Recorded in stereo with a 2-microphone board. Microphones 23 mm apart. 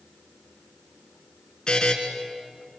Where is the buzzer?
30° left (ahead or behind), 3 m.